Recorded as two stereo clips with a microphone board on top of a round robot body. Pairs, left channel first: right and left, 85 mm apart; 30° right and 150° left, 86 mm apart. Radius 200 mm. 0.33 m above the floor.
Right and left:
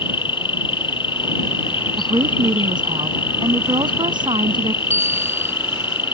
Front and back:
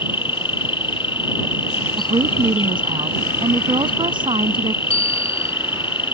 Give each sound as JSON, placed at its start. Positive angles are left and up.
{"t": 0.0, "sound": "an insect", "azimuth_deg": -60}
{"t": 2.0, "sound": "a woman speaking", "azimuth_deg": 120}
{"t": 4.9, "sound": "a bicycle bell", "azimuth_deg": -20}